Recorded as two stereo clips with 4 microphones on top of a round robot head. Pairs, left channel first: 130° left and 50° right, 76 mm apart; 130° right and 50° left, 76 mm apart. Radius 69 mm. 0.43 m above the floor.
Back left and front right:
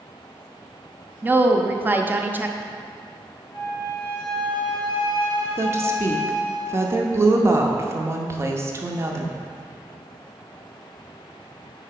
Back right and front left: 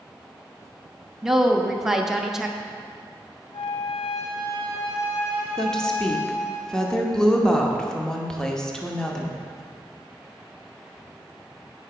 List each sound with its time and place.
1.2 s a woman speaking: 30° right, 0.8 m
3.5 s a flute: 170° left, 2 m
5.6 s a woman speaking: 55° right, 0.9 m